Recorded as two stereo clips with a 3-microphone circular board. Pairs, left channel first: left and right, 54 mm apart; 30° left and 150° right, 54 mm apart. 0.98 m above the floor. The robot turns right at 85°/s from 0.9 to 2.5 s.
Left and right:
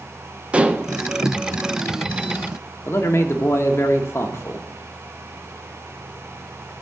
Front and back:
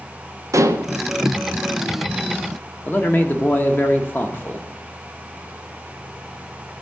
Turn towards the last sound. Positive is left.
turn(degrees=75)